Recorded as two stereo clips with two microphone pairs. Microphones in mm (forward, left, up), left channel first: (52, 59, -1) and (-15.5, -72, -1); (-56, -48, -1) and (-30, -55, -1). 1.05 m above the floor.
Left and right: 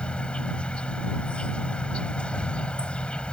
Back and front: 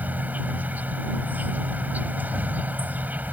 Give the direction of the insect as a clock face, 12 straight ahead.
1 o'clock.